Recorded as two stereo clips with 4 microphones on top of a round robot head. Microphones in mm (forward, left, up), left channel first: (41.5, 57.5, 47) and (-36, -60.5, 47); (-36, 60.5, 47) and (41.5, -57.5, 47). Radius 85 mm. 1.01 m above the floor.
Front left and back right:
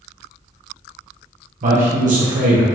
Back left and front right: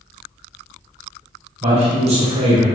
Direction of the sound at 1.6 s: 100° right.